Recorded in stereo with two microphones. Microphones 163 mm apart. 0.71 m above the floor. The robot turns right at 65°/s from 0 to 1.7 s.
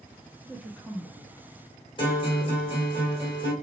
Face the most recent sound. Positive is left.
turn(degrees=30)  # may be behind; listen again after turning